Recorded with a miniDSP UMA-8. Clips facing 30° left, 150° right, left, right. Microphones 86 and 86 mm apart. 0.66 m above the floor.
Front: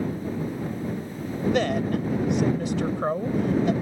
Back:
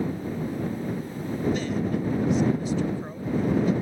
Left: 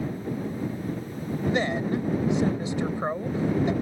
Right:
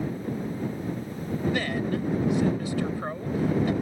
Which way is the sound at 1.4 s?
20° left.